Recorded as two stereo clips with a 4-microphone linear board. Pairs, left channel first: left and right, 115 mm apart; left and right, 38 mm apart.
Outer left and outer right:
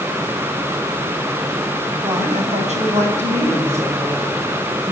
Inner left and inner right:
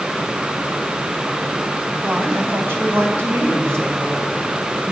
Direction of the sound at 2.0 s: 70° right (ahead or behind).